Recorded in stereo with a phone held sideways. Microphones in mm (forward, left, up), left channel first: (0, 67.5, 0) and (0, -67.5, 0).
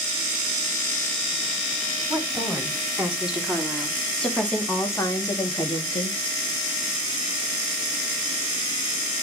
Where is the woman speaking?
15° right (ahead or behind), 3.5 m; by 6.2 s 45° left (ahead or behind), 1.9 m.